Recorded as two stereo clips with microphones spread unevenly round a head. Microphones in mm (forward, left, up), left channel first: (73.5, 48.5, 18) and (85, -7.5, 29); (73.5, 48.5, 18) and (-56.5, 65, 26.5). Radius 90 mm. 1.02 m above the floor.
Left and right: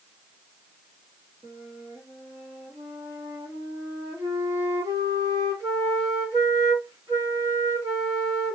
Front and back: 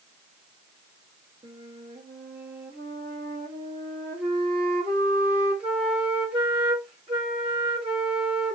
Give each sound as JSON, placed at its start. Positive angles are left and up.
{"t": 1.4, "sound": "a flute", "azimuth_deg": -125, "distance_m": 2.0}